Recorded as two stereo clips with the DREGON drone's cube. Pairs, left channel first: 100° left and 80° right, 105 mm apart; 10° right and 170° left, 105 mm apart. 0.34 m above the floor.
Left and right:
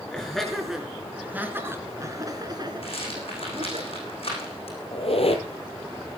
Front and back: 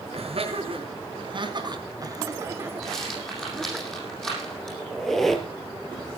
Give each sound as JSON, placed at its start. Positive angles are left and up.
{"t": 0.1, "sound": "laughter", "azimuth_deg": -175, "distance_m": 4.0}
{"t": 2.8, "sound": "a rattle", "azimuth_deg": 75, "distance_m": 8.0}
{"t": 4.9, "sound": "a squeak", "azimuth_deg": 75, "distance_m": 2.5}